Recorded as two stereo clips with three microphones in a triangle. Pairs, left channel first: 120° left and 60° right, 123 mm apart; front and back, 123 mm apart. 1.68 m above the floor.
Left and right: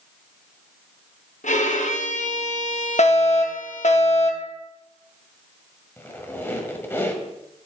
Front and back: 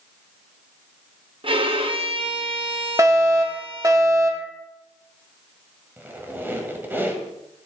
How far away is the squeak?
About 1.5 m.